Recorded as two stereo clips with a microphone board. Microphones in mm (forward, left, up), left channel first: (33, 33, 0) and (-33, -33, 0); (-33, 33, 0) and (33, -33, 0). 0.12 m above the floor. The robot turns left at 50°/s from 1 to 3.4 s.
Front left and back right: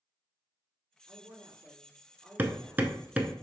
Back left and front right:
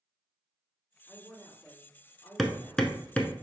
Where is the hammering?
135° right, 0.6 m; by 3.3 s 175° left, 0.6 m.